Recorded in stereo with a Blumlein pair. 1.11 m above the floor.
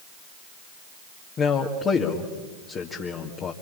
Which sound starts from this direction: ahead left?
A man speaking, at 1.4 s.